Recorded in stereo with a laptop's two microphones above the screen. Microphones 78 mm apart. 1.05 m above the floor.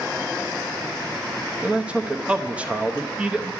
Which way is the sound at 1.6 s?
15° right (ahead or behind).